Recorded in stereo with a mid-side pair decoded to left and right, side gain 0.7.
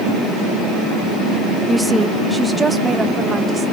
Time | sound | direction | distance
1.7 | a woman speaking | straight ahead | 0.7 m